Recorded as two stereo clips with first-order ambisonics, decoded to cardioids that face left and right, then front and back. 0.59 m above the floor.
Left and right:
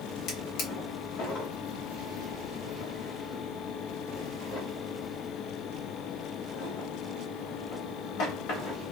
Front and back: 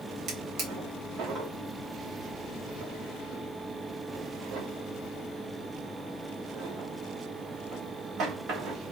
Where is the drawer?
130° left, 1.2 m.